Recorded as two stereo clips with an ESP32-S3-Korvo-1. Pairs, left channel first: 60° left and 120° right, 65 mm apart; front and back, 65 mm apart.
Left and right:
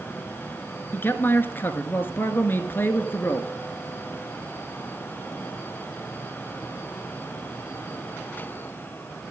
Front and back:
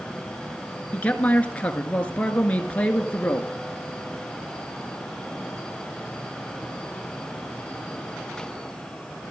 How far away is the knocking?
No knocking in this recording.